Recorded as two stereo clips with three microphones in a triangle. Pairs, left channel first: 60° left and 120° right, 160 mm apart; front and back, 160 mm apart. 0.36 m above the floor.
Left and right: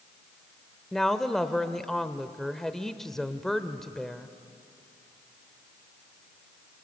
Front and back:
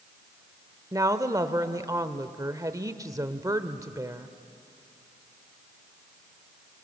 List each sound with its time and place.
0.9 s a woman speaking: 145° left, 1.1 m